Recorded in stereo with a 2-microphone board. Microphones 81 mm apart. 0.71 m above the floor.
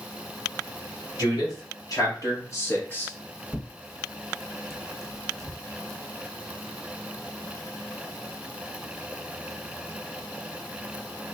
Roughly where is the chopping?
I don't hear chopping.